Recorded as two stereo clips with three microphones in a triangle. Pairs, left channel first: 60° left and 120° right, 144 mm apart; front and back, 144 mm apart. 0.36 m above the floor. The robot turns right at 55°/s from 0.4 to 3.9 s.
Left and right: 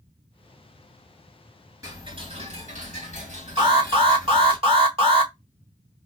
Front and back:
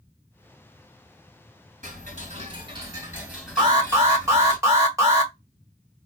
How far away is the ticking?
About 2 m.